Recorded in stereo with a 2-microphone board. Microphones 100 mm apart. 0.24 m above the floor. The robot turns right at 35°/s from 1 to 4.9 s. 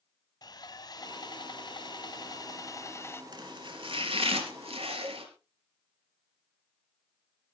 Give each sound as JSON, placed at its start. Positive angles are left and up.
{"t": 0.4, "sound": "sawing", "azimuth_deg": 70, "distance_m": 1.1}
{"t": 3.3, "sound": "chopping", "azimuth_deg": -130, "distance_m": 4.0}
{"t": 5.0, "sound": "a cowbell", "side_deg": -20, "distance_m": 0.8}